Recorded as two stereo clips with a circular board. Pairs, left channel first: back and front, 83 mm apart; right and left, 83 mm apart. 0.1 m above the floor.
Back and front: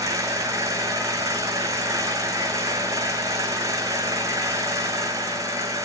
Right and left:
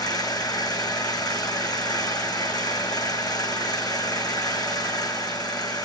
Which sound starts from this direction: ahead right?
An engine running, at 0.0 s.